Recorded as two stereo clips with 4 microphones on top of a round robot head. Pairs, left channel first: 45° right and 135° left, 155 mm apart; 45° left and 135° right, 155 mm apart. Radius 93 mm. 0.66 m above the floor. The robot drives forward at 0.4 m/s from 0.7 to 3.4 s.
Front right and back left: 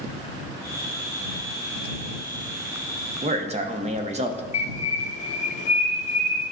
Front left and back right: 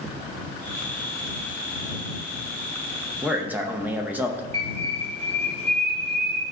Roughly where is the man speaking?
Behind left.